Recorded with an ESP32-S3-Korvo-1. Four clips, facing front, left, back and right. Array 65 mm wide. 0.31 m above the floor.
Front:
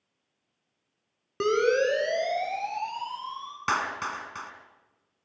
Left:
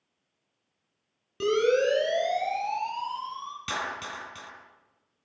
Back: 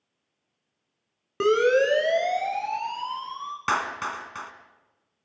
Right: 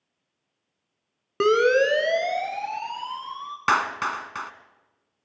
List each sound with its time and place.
1.4 s a siren: 100° right, 3.5 m; by 3.6 s 125° right, 4.5 m
3.7 s a clap: 95° right, 2.5 m